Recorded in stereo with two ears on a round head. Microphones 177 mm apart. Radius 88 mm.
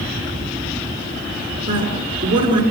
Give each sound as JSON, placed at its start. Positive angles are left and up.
{"t": 1.7, "sound": "a woman speaking", "side_deg": -25, "distance_m": 7.0}